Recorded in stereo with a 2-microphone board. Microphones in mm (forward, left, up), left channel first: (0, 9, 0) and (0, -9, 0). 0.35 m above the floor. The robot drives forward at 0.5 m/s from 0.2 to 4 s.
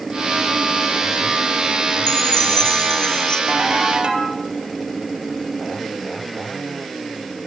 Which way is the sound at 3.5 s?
55° right (ahead or behind).